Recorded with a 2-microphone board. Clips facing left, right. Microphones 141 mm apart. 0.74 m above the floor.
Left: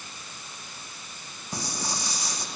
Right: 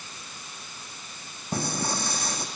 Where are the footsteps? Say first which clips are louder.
Right 5 dB; 55° right (ahead or behind), 2.5 m.